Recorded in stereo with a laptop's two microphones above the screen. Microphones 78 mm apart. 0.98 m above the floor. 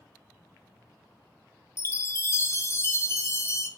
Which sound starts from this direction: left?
A chime, at 1.8 s.